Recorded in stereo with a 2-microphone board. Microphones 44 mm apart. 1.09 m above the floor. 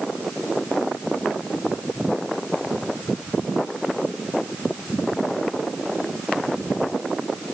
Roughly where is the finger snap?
No finger snap in this recording.